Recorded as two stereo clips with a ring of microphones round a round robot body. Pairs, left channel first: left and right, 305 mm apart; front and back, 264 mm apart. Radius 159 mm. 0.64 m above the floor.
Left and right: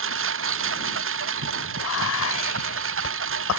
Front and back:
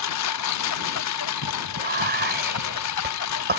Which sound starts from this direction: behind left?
Whispering, at 1.8 s.